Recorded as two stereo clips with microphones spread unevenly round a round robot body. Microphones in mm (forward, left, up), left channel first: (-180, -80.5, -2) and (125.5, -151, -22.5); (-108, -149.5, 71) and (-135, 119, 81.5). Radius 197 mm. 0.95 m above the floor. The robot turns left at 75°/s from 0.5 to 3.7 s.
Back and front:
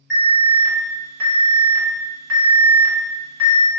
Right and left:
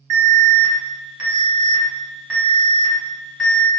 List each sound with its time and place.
0.1 s an alarm: 130° left, 1.5 m; by 3.7 s 110° right, 1.5 m